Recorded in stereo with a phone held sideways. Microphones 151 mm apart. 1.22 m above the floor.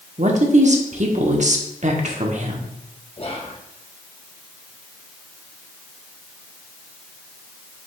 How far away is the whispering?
About 0.7 m.